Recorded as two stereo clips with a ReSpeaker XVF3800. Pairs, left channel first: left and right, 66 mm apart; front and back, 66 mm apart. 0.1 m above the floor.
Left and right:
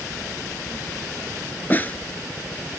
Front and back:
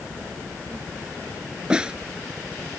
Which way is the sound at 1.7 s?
120° left.